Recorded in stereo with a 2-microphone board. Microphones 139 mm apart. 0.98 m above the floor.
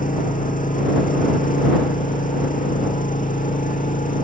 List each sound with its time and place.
0.0 s an engine running: 75° left (ahead or behind)